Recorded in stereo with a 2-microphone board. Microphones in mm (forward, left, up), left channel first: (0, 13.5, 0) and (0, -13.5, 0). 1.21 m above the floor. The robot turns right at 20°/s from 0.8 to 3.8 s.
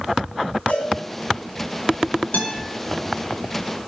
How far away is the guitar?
About 6 m.